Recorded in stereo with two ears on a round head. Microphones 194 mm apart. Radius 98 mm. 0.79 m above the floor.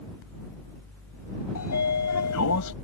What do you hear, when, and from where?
1.6 s a sliding door: 85° left